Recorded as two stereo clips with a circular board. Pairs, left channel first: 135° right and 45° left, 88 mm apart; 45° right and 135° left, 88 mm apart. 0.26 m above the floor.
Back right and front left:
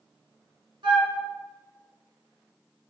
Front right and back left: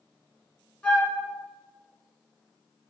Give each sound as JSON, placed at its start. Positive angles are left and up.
{"t": 0.8, "sound": "a flute", "azimuth_deg": 35, "distance_m": 1.1}